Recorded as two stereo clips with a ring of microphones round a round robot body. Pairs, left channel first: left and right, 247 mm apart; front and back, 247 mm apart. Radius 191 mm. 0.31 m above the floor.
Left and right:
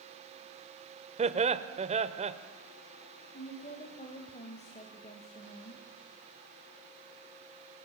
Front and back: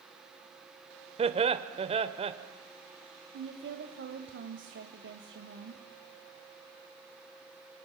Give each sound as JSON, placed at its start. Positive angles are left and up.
{"t": 1.2, "sound": "laughter", "azimuth_deg": -130, "distance_m": 1.0}
{"t": 3.3, "sound": "a woman speaking", "azimuth_deg": 150, "distance_m": 1.7}